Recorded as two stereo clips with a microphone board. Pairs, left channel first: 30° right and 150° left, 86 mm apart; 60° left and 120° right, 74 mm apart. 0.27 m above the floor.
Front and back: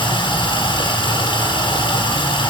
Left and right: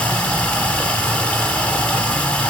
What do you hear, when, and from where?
0.0 s running water: 10° right, 1.5 m